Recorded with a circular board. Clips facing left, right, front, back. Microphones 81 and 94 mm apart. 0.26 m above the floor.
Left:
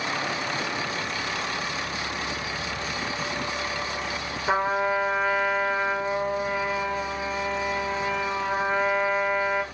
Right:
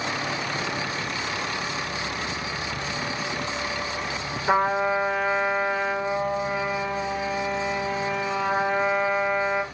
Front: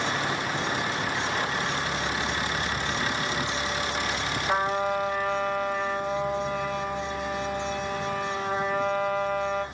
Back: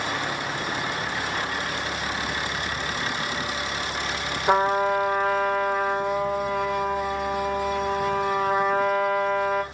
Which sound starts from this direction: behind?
A trumpet, at 4.5 s.